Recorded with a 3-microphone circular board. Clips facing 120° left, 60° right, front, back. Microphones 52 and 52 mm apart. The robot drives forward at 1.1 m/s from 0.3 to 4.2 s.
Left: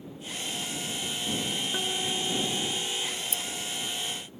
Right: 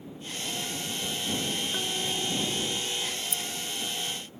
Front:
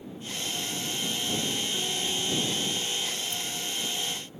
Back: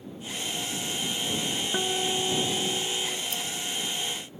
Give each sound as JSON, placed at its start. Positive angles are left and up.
{"t": 1.7, "sound": "a guitar", "azimuth_deg": -160}
{"t": 3.3, "sound": "keys jangling", "azimuth_deg": 165}